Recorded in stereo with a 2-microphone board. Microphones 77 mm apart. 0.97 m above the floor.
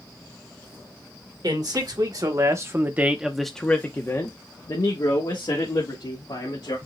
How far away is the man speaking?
About 1.3 m.